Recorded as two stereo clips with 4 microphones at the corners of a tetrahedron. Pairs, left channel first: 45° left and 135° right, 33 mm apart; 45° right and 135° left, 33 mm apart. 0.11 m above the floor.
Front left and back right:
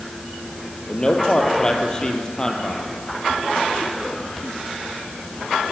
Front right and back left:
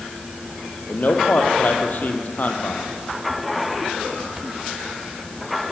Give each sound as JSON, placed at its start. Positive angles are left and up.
{"t": 0.9, "sound": "a man speaking", "azimuth_deg": -20, "distance_m": 3.0}